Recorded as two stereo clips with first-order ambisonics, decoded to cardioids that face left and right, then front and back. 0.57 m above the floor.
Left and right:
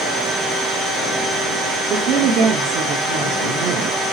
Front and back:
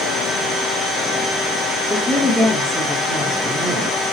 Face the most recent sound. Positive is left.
turn(degrees=-90)